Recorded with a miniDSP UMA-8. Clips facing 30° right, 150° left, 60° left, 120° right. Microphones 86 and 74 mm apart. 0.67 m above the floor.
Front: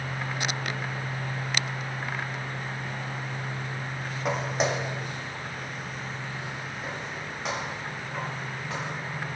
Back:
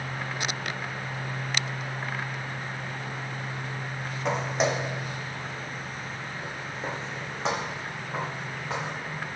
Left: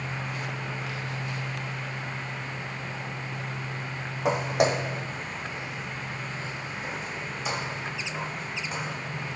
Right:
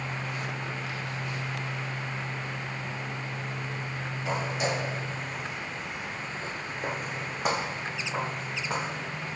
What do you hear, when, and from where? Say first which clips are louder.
4.2 s footsteps: back 1 dB, left 6 dB; 55° left, 2 m; by 8.9 s 145° right, 4.5 m